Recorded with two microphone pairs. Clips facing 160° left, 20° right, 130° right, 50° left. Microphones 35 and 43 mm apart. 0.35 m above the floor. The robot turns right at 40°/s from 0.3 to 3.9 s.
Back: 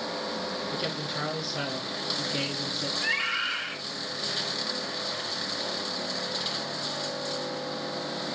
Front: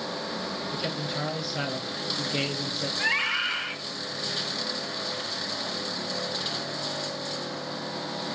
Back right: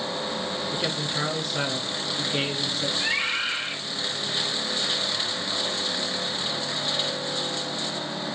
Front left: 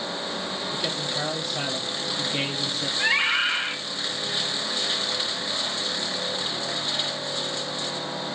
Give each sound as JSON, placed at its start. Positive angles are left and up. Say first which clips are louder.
{"t": 0.7, "sound": "a man speaking", "louder": "front 1 dB, back right 1 dB", "azimuth_deg": -135, "distance_m": 4.5}
{"t": 3.0, "sound": "a scream", "louder": "front 3 dB, front left 6 dB", "azimuth_deg": -10, "distance_m": 3.0}